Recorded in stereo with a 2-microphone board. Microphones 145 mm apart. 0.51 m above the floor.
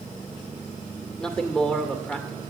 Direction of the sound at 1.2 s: 5° left (ahead or behind).